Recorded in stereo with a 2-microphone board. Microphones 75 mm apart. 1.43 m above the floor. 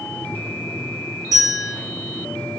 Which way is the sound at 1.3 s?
55° right (ahead or behind).